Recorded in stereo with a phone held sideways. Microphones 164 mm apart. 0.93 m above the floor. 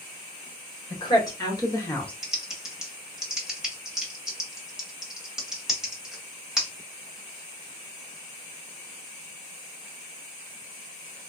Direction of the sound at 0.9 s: 25° left (ahead or behind).